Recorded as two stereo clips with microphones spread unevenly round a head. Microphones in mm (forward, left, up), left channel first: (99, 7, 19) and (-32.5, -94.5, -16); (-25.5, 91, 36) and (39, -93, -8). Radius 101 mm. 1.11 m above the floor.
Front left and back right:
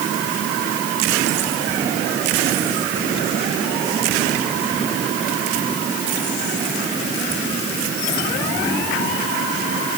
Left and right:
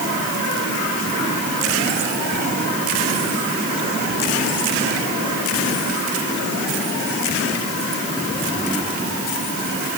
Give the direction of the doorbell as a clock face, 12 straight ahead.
I don't hear a doorbell.